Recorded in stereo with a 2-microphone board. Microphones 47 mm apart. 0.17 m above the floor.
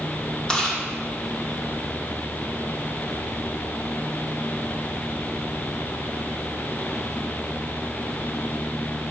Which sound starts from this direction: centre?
Chewing, at 0.5 s.